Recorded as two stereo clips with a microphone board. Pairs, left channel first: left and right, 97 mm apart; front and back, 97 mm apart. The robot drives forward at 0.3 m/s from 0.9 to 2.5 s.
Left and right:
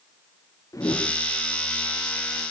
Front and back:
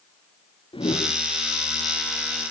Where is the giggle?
I don't hear a giggle.